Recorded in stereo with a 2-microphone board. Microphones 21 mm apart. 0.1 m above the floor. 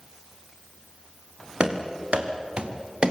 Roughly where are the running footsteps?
Right.